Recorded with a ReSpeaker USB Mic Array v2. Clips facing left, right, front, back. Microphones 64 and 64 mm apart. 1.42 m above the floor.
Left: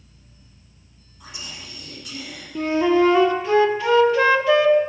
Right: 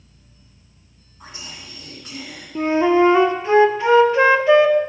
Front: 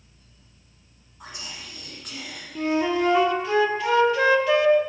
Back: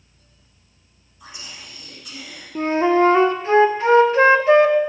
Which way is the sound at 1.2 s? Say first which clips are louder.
Even, front 1 dB; 35° right.